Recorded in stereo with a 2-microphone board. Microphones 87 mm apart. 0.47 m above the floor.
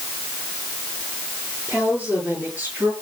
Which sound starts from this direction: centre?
A woman speaking, at 1.7 s.